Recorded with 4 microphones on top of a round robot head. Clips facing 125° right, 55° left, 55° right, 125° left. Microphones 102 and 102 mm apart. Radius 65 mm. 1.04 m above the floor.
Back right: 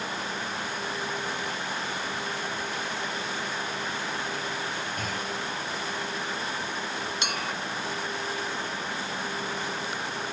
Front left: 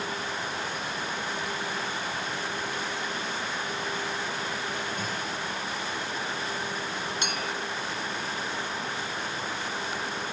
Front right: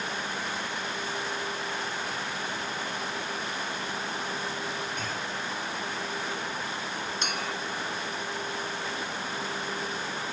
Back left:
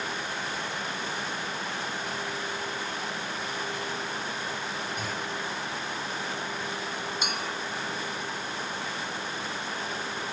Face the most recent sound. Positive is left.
turn(degrees=-150)